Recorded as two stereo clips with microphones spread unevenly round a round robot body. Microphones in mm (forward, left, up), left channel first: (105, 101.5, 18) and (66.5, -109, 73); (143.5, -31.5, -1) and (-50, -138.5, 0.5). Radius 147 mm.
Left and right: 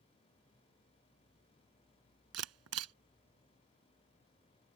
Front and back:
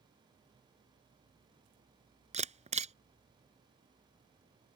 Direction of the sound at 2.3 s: 90° right.